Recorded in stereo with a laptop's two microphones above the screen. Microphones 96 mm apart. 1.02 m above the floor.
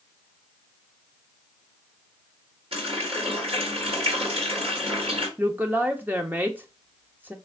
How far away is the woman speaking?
About 0.7 m.